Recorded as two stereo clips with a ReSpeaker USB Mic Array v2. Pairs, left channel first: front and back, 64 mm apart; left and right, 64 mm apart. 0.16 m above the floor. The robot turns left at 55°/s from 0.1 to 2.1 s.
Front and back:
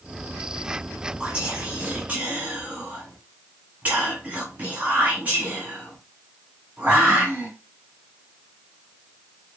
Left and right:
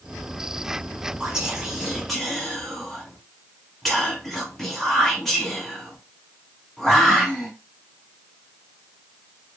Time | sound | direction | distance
1.2 | whispering | 135° right | 1.1 m